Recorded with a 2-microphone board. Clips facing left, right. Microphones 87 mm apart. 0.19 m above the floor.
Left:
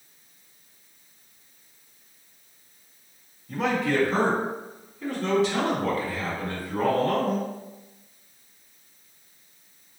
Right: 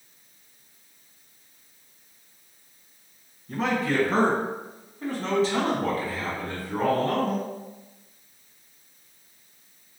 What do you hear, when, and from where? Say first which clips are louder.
3.5 s a man speaking: left 1 dB; 35° right (ahead or behind), 1.9 m; by 7.5 s 25° right (ahead or behind), 1.6 m